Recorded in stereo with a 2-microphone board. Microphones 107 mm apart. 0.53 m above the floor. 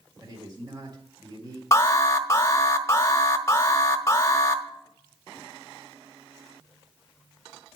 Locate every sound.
0.2 s a man speaking: 40° right (ahead or behind), 1.7 m
1.7 s an alarm: 30° left (ahead or behind), 0.9 m